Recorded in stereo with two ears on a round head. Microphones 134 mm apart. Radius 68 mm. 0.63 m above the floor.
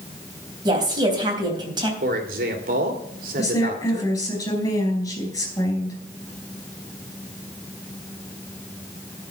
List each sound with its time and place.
0.7 s a woman speaking: 30° right (ahead or behind), 3.5 m
2.0 s a man speaking: 65° right (ahead or behind), 2.5 m
3.4 s a woman speaking: 25° left (ahead or behind), 5 m